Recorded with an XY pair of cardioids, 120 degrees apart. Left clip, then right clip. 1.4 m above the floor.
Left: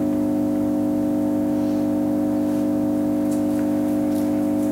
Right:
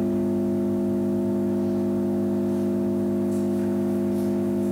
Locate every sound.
0.0 s an engine running: 65° left, 1.0 m